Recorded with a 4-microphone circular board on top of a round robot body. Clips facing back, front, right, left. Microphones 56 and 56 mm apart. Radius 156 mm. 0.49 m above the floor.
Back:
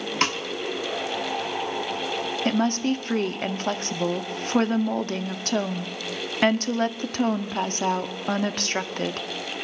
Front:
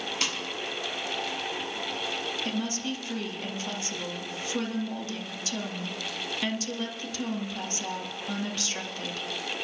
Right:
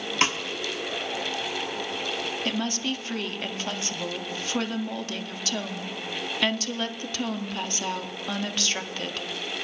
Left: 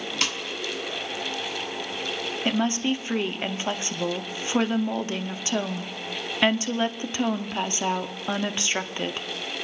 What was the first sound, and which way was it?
A snare drum, 145° right.